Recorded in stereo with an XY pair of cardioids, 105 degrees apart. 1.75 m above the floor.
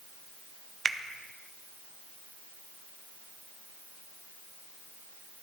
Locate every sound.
0.8 s a finger snap: 40° right, 0.6 m